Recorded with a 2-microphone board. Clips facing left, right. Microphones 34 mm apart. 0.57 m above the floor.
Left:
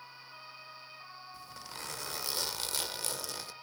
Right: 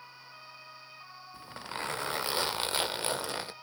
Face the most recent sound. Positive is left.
turn(degrees=-35)  # may be behind; listen again after turning